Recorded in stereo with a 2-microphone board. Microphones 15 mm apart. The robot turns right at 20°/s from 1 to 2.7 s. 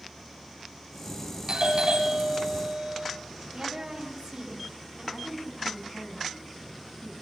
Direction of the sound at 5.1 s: 75° left (ahead or behind).